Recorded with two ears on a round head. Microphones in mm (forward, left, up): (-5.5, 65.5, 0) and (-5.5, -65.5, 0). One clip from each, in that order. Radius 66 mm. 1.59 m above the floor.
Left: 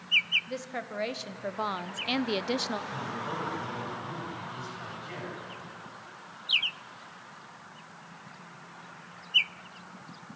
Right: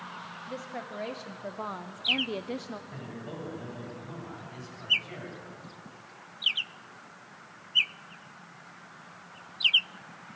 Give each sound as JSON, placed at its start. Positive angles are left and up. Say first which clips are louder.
{"t": 0.5, "sound": "a woman speaking", "louder": "left 2 dB", "side_deg": 35, "distance_m": 1.6}
{"t": 2.9, "sound": "a man speaking", "louder": "left 7 dB", "side_deg": -5, "distance_m": 9.5}